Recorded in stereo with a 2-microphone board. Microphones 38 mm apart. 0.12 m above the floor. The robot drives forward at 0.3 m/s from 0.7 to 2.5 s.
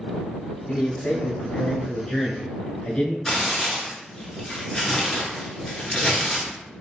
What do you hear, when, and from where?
0.7 s a man speaking: 30° left (ahead or behind), 1.3 m; by 3.1 s 25° left (ahead or behind), 1.5 m
3.2 s tearing paper: 5° left (ahead or behind), 1.3 m